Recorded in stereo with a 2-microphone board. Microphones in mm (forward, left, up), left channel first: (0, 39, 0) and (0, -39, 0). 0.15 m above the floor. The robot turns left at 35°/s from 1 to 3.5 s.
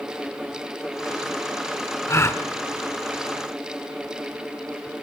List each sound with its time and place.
2.1 s a gasp: 35° left (ahead or behind), 1.2 m; by 2.4 s 30° left (ahead or behind), 1.2 m